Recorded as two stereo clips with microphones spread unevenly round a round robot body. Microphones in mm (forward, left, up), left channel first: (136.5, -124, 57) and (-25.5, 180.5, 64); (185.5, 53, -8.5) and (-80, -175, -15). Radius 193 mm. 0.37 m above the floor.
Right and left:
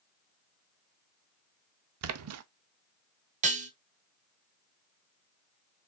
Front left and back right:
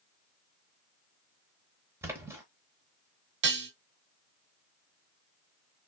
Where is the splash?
140° left, 0.6 m.